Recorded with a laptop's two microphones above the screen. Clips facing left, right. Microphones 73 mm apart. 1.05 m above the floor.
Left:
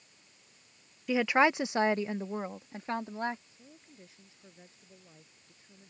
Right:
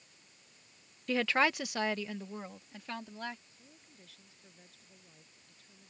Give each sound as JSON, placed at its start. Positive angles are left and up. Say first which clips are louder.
{"t": 1.1, "sound": "a woman speaking", "louder": "left 4 dB", "side_deg": 10}
{"t": 3.5, "sound": "a woman speaking", "louder": "left 5 dB", "side_deg": 25}